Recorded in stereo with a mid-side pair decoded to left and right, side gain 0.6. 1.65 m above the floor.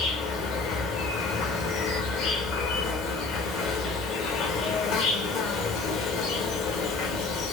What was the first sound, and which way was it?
An insect, 60° left.